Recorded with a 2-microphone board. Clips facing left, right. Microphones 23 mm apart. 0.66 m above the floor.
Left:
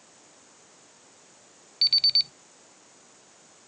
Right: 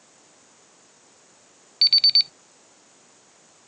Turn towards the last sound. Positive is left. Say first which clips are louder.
# right 5 dB
turn(degrees=-25)  # may be behind; listen again after turning